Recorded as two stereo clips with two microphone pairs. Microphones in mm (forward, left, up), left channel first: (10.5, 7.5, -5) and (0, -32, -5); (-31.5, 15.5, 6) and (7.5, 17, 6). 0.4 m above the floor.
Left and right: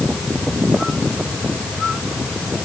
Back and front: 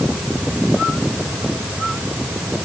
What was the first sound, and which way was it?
Only background noise.